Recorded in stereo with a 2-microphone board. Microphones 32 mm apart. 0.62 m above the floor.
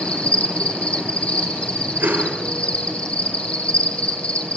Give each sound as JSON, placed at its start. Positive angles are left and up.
{"t": 0.0, "sound": "an insect", "side_deg": 40, "distance_m": 3.0}
{"t": 2.0, "sound": "a whoosh", "side_deg": -80, "distance_m": 9.0}